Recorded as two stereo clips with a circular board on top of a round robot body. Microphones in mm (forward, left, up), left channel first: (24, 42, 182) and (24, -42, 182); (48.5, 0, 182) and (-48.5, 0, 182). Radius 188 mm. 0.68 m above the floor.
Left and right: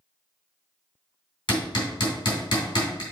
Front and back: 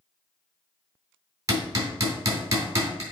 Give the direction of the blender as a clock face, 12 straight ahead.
No blender in this recording.